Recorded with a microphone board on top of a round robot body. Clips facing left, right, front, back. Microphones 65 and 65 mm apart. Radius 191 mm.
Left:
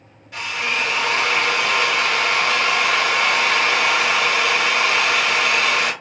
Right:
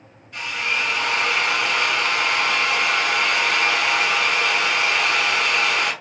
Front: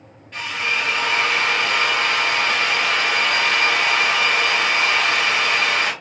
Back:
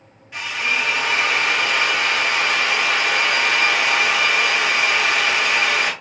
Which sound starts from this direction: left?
A drill, at 0.3 s.